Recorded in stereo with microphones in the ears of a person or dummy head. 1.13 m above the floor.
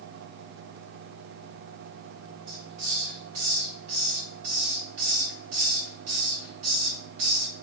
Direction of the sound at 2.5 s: 80° right.